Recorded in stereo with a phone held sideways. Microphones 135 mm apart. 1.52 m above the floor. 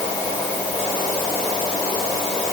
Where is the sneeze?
I don't hear a sneeze.